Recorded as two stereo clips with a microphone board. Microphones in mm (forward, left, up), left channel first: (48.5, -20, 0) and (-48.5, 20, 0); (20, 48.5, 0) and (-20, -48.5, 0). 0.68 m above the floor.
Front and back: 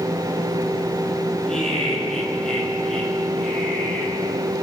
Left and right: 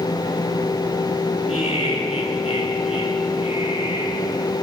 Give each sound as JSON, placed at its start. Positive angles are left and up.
{"t": 1.5, "sound": "laughter", "azimuth_deg": 60, "distance_m": 9.5}